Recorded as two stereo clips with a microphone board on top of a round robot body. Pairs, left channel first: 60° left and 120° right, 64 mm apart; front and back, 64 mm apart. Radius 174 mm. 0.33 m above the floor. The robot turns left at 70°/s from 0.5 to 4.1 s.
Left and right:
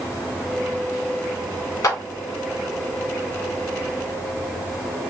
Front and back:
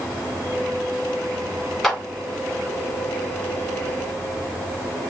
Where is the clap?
85° left, 2 m; by 2.0 s 75° left, 2 m.